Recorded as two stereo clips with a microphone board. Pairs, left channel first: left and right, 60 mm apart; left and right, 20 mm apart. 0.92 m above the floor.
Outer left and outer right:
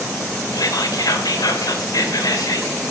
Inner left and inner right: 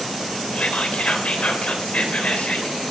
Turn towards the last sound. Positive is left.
turn(degrees=85)